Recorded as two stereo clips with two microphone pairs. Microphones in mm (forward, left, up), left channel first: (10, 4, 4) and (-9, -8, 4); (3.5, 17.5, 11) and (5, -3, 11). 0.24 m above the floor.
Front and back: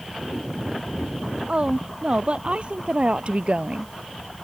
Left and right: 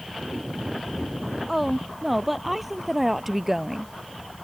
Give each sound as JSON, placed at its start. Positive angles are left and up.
{"t": 1.5, "sound": "a woman speaking", "azimuth_deg": 180}